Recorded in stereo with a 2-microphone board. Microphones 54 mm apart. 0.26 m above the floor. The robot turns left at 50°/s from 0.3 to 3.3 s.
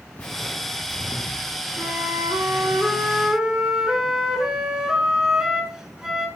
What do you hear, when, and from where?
0.2 s footsteps: 25° left (ahead or behind), 1.3 m; by 2.8 s 45° right (ahead or behind), 5 m
1.8 s a flute: 90° right, 2.5 m; by 6.3 s 170° right, 2.5 m